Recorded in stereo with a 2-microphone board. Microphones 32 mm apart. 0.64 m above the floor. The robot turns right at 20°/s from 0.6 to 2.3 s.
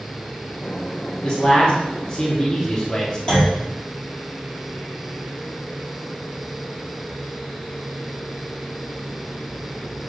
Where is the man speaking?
35° left (ahead or behind), 1.1 m; by 3.2 s 30° left (ahead or behind), 1.1 m.